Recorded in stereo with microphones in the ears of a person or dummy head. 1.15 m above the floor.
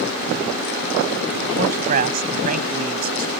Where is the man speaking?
45° right (ahead or behind).